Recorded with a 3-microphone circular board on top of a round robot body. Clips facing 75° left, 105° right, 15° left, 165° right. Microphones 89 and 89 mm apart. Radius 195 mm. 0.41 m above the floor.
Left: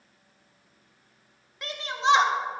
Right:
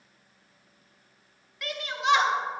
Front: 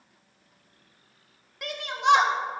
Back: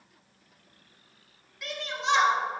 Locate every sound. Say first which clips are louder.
1.6 s a shout: left 3 dB, front 7 dB; 20° left, 1.7 m